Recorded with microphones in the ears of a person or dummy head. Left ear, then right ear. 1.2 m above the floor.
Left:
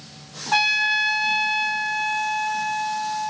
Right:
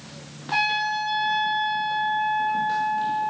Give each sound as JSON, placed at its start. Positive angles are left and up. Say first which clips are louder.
{"t": 0.5, "sound": "a trumpet", "louder": "left 4 dB", "side_deg": 50, "distance_m": 2.0}